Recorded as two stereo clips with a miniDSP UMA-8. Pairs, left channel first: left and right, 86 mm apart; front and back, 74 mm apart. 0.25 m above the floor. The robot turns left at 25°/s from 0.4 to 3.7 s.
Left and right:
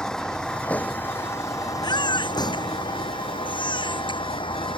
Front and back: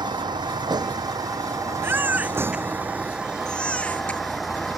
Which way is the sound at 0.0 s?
170° left.